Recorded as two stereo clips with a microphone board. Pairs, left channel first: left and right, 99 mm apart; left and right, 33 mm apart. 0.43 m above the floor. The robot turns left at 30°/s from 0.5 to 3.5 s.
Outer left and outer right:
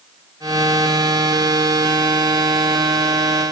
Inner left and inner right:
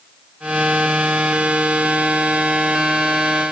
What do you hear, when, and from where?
Only background noise.